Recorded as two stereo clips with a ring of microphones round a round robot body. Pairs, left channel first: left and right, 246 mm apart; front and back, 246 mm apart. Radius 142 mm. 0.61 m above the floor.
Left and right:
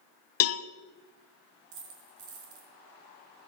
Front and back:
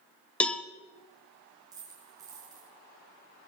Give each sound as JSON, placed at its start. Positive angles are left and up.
{"t": 0.4, "sound": "a cowbell", "azimuth_deg": 85, "distance_m": 0.7}
{"t": 1.7, "sound": "a dropped coin", "azimuth_deg": -100, "distance_m": 4.0}